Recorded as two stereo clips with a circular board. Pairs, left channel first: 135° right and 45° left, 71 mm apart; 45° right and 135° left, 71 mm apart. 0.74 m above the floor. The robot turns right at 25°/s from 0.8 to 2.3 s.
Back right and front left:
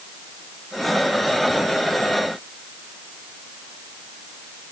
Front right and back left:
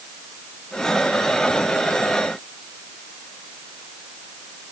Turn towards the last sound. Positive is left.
No sound to turn to.